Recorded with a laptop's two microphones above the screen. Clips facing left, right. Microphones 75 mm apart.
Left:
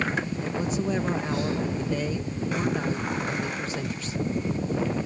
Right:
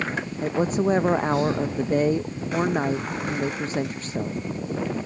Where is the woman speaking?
40° right (ahead or behind).